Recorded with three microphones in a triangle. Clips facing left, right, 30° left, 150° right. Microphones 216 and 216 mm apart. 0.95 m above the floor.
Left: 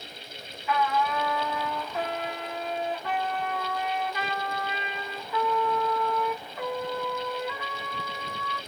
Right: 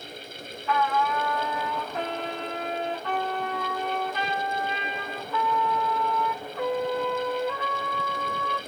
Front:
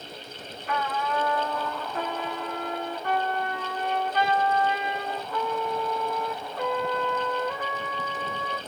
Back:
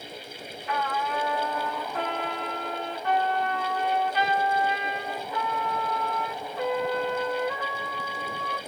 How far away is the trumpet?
About 1.3 m.